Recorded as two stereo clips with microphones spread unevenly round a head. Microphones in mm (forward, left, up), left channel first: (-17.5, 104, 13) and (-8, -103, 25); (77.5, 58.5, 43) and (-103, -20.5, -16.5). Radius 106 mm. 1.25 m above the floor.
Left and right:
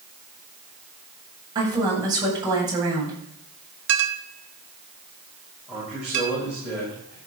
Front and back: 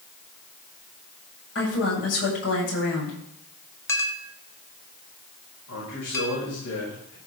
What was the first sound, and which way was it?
A woman speaking, 15° right.